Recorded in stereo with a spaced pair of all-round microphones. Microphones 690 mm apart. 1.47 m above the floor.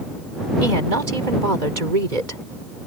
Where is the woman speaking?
85° right.